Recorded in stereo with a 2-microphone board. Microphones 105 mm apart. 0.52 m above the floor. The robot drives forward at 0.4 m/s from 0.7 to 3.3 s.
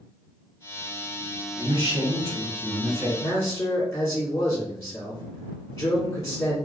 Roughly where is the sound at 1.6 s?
Right.